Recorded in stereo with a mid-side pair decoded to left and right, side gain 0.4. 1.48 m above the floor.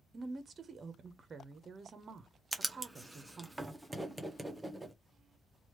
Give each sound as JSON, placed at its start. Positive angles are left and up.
{"t": 0.1, "sound": "a woman speaking", "azimuth_deg": -45, "distance_m": 0.8}
{"t": 2.5, "sound": "writing", "azimuth_deg": -10, "distance_m": 0.8}